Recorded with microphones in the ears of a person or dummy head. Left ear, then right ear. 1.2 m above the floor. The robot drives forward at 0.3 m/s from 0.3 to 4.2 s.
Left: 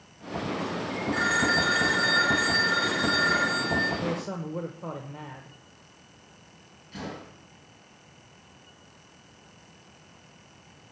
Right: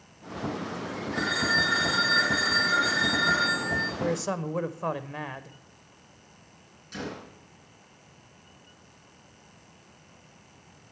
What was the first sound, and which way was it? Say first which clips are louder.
A phone ringing: left 1 dB; 25° left (ahead or behind).